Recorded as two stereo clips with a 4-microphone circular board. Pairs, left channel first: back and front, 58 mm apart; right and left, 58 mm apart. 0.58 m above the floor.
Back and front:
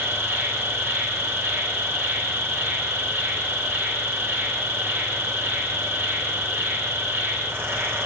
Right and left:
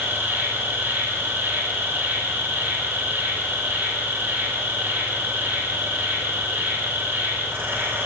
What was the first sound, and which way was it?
An insect, 45° left.